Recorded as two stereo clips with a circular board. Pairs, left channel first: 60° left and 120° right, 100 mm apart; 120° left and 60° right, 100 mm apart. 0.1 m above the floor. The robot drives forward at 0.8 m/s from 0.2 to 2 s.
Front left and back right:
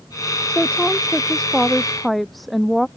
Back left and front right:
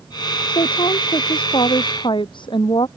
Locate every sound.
0.5 s a woman speaking: 140° left; by 2.9 s 150° left